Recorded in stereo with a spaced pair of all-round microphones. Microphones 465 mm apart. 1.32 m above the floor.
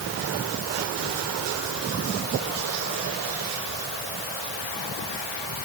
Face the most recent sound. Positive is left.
No sound to turn to.